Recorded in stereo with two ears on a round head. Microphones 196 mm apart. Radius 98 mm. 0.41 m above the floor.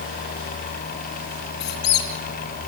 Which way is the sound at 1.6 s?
45° left (ahead or behind).